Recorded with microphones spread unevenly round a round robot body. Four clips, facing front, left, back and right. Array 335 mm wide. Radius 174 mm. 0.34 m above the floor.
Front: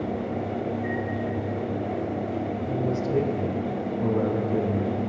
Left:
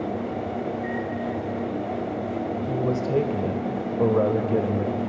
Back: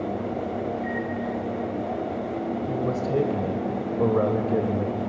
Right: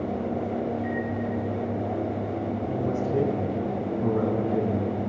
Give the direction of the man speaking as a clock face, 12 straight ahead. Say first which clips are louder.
Left 3 dB, even; 8 o'clock.